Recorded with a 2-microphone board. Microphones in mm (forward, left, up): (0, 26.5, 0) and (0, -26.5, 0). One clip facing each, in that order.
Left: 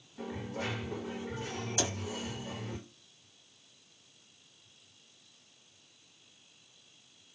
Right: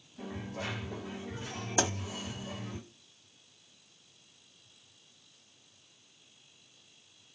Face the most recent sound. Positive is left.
turn(degrees=-45)  # may be behind; listen again after turning